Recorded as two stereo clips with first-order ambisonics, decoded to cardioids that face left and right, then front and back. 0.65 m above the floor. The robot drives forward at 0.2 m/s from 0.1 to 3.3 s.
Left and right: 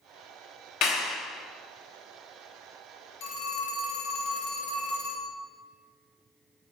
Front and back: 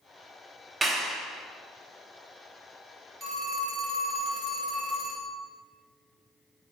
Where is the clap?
110° left, 0.5 m; by 1.2 s 120° left, 0.5 m.